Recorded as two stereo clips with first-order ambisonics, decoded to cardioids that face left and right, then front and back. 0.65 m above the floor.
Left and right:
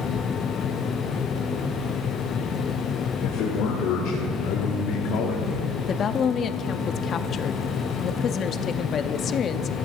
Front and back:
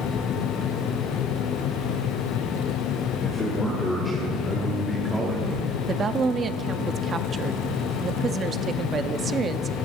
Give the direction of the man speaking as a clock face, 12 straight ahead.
10 o'clock.